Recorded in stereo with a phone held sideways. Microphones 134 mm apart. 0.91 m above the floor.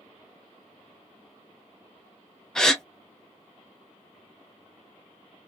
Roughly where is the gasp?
Centre.